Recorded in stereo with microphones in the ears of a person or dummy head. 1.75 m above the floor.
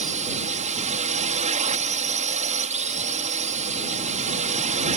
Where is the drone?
40° right (ahead or behind).